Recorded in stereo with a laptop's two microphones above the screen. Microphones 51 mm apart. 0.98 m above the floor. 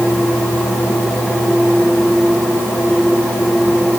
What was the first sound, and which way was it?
Only background noise.